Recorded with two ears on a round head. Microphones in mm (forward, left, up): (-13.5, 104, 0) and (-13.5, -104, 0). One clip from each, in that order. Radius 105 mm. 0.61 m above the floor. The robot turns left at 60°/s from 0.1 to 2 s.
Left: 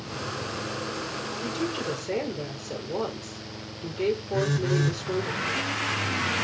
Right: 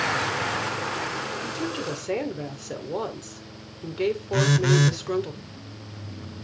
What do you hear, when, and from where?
1.4 s a woman speaking: 15° left, 1.7 m; by 5.3 s 20° right, 1.7 m
4.3 s a phone buzzing: 50° right (ahead or behind), 0.6 m